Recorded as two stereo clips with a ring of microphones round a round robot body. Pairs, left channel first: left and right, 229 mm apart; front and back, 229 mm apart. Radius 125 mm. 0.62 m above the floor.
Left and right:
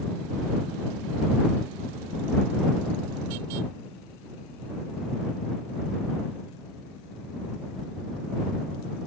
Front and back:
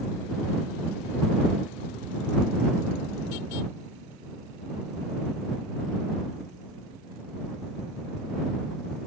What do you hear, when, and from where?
Only background noise.